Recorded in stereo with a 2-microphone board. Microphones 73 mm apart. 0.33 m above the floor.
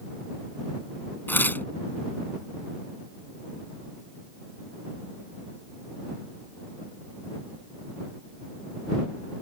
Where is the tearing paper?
30° left (ahead or behind).